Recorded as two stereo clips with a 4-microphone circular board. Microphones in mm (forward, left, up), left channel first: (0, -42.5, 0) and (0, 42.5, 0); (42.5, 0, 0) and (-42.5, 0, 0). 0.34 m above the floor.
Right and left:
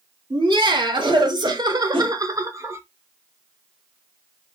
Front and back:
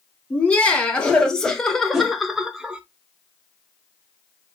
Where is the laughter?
75° left, 1.8 m; by 2.8 s 115° left, 0.9 m.